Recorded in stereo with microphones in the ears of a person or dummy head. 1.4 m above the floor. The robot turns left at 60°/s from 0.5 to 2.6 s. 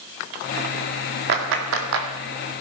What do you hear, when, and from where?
1.3 s a clap: 60° right (ahead or behind), 2 m; by 2.1 s 70° right (ahead or behind), 2 m